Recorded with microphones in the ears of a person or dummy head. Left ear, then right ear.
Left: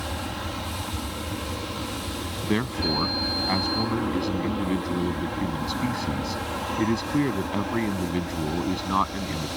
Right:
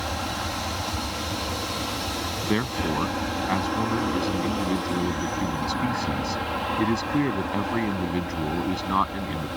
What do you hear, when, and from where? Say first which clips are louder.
0.0 s an aircraft: right 3 dB; 20° right (ahead or behind)
2.4 s a man speaking: left 2 dB; 10° right (ahead or behind)